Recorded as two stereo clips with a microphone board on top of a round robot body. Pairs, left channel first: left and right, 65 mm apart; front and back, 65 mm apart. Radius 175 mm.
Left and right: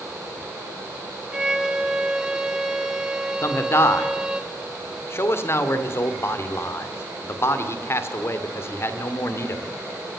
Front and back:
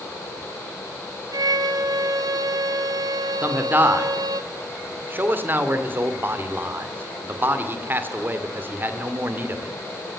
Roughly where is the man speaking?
Behind left.